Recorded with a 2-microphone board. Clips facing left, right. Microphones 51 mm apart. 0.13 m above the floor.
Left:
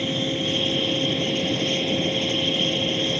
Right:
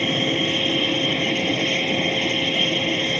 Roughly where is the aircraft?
Right.